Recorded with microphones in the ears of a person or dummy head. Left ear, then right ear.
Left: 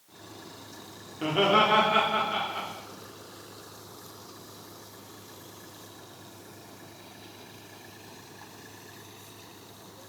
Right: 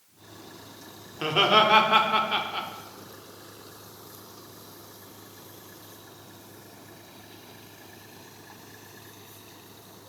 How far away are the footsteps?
I don't hear footsteps.